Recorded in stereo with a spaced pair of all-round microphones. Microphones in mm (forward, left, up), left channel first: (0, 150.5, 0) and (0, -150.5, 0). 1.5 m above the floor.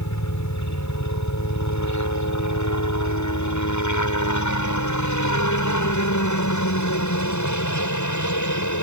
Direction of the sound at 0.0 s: 65° left (ahead or behind).